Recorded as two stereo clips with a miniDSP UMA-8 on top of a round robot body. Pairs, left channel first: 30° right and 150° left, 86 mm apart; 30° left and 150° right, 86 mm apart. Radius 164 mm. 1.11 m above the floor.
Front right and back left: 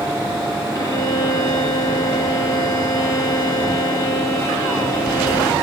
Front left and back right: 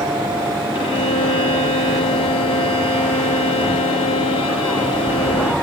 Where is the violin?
25° left, 0.7 m.